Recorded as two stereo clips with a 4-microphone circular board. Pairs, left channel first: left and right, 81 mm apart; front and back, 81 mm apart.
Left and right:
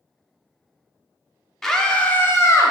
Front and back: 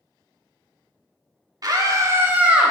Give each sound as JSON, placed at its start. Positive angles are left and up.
{"t": 1.6, "sound": "a scream", "azimuth_deg": 175, "distance_m": 1.1}